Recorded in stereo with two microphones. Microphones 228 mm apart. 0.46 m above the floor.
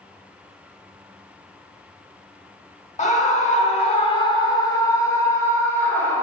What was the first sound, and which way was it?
A scream, 30° left (ahead or behind).